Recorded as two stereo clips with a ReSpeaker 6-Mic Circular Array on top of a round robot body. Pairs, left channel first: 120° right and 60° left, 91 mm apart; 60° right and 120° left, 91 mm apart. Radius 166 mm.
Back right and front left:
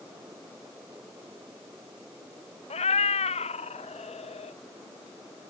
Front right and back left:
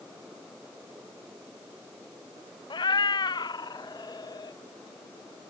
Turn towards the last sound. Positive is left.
turn(degrees=-110)